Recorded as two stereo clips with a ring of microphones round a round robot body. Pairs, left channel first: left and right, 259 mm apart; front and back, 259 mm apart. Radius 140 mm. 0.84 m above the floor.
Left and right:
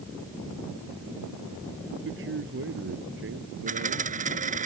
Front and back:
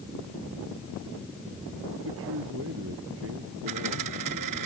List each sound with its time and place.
2.0 s a man speaking: 130° right
3.7 s a dropped coin: 150° right